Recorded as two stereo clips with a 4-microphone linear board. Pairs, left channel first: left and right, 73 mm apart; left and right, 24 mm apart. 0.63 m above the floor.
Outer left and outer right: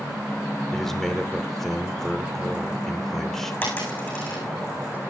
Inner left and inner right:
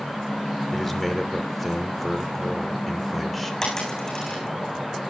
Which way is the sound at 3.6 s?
25° left (ahead or behind).